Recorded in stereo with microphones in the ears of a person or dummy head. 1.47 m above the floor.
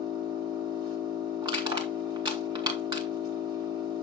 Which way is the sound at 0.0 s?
25° right (ahead or behind).